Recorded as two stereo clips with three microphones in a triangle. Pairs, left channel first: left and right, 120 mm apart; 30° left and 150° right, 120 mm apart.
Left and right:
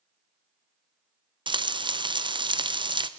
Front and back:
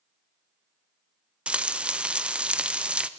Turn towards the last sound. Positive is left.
turn(degrees=-70)